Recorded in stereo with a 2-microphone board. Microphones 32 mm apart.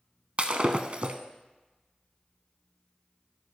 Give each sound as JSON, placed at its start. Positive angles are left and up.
{"t": 0.4, "sound": "breaking glass", "side_deg": -40, "distance_m": 0.6}